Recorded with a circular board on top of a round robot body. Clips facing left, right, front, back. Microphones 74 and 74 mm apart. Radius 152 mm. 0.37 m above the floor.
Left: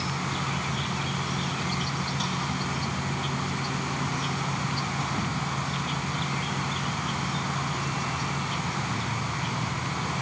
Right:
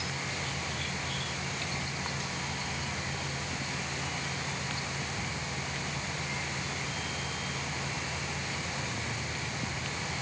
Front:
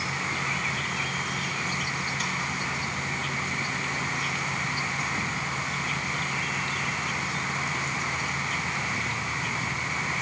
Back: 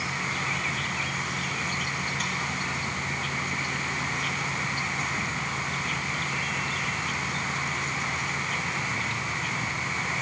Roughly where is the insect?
Left.